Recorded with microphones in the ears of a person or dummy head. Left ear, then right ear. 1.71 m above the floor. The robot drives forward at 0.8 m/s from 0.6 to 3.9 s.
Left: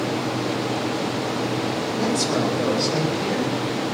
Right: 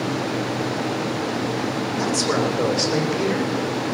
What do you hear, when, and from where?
1.9 s a man speaking: 65° right (ahead or behind), 7.5 m; by 3.4 s 55° right (ahead or behind), 8 m